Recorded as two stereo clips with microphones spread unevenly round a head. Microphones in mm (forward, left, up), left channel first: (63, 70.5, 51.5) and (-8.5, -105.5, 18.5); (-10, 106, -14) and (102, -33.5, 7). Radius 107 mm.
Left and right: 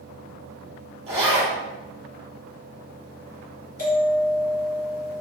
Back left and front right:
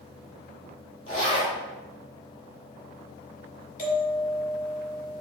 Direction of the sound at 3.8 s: 95° left.